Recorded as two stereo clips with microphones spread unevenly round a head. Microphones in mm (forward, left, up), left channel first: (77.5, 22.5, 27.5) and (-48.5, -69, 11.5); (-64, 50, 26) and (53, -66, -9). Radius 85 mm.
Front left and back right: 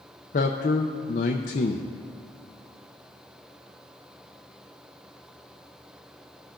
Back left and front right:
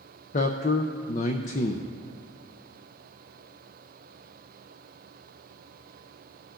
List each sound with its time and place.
0.3 s a man speaking: 85° left, 0.5 m